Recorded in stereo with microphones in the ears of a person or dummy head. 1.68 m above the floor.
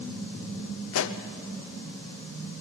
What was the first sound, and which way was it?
A pop, 80° left.